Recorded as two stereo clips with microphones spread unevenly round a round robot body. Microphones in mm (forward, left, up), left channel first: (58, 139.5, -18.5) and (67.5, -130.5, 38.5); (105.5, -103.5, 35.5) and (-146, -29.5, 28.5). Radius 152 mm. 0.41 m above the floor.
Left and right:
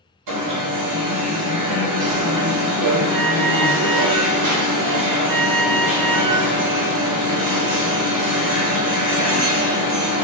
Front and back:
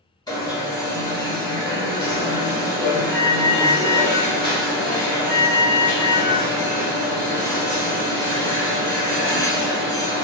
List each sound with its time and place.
0.3 s an alarm: 90° right, 1.2 m